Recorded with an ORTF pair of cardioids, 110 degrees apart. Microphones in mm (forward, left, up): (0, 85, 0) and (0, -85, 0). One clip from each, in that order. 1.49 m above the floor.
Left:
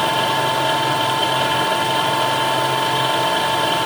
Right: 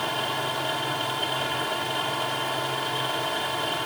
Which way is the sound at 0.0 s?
50° left.